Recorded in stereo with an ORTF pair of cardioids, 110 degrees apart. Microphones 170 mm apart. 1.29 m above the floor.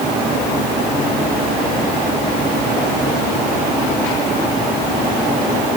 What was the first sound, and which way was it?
Only background noise.